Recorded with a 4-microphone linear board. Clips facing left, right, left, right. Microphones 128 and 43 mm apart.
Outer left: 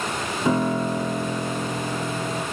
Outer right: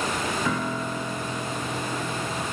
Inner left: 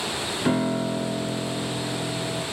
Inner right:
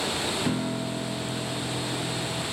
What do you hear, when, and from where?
0.5 s a piano: 25° left (ahead or behind), 1.3 m